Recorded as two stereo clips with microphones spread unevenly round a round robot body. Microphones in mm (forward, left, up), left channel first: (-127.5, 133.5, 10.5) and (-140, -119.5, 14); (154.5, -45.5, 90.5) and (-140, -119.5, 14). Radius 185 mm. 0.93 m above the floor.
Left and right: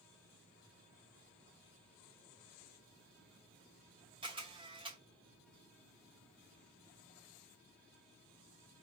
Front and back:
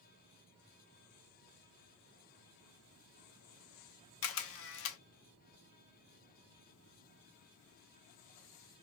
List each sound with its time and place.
4.2 s a camera shutter: 15° right, 0.6 m